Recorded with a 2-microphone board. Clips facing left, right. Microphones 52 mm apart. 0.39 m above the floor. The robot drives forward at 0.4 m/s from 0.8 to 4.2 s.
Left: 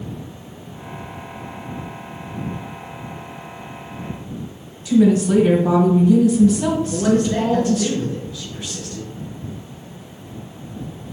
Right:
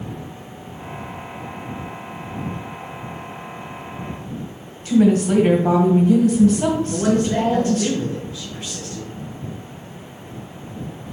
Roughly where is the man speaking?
Right.